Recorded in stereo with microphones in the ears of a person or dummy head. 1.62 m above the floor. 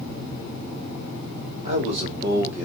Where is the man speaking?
40° right (ahead or behind), 1.5 m; by 2.6 s 10° right (ahead or behind), 1.0 m.